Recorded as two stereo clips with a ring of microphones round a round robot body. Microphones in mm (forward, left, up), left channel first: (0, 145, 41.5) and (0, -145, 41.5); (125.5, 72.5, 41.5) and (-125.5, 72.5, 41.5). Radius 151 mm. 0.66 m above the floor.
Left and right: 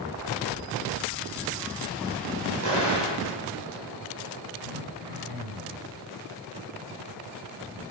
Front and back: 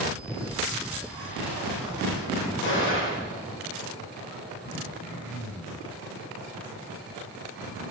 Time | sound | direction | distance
2.6 | an explosion | 50° right | 3.5 m
4.6 | throat clearing | 75° right | 5.5 m